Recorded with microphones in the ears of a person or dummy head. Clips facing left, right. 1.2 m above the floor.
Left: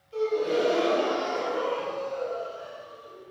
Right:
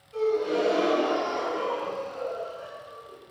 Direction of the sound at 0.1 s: 45° left (ahead or behind).